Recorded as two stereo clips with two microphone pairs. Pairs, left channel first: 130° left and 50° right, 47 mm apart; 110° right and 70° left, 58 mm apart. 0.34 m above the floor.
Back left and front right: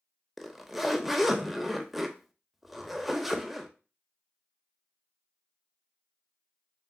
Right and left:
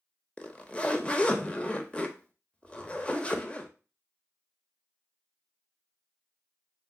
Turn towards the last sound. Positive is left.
turn(degrees=-125)